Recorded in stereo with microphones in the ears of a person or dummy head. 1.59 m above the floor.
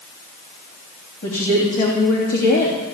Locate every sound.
1.2 s a woman speaking: 50° left (ahead or behind), 3 m